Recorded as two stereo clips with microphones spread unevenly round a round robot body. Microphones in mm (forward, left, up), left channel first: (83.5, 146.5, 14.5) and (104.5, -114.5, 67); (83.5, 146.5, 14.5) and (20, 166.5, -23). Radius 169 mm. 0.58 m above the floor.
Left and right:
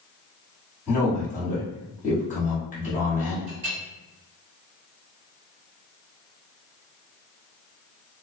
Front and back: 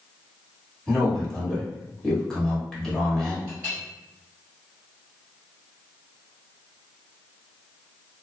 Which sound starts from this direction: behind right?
A clink, at 3.5 s.